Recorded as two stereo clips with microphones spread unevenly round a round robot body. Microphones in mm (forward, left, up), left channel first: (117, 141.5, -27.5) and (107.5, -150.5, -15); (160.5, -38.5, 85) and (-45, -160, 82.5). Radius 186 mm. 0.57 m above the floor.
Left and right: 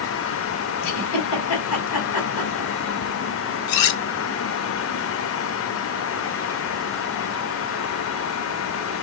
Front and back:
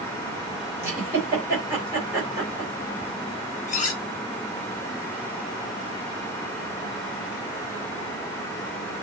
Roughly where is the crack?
I don't hear a crack.